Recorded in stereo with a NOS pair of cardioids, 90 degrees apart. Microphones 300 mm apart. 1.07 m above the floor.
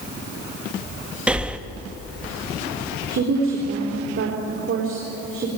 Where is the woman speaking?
45° right, 4 m.